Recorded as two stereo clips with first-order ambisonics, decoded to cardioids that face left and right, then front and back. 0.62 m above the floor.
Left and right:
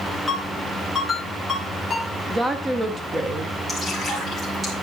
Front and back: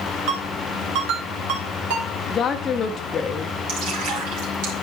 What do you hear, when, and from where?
0.3 s a ringtone: 175° left, 2 m
2.3 s a woman speaking: 30° right, 0.6 m
3.7 s dripping: 170° right, 3.5 m